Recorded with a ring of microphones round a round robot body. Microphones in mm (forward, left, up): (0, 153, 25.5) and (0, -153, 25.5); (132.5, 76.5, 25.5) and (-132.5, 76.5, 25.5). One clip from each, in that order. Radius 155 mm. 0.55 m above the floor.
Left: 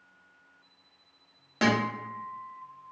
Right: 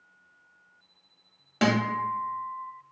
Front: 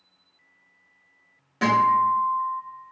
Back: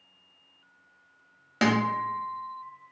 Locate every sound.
1.6 s a guitar: 175° right, 0.8 m